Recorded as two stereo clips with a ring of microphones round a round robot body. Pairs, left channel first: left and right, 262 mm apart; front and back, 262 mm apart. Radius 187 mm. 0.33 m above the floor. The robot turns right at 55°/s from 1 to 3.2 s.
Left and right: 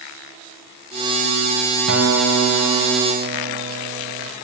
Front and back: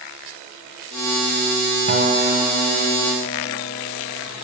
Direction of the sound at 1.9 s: 130° right.